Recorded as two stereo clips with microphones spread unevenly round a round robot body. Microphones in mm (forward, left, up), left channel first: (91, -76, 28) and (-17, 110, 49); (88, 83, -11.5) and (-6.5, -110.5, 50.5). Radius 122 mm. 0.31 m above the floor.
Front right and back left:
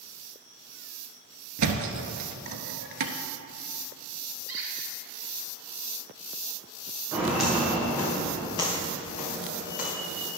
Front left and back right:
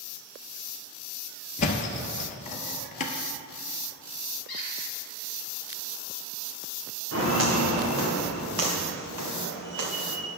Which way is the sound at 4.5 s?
150° left.